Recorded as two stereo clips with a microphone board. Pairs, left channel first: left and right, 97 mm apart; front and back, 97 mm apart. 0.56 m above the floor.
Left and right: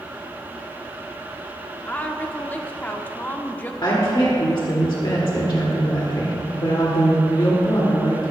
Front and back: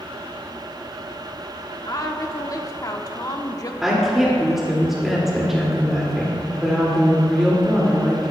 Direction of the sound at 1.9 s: 30° left.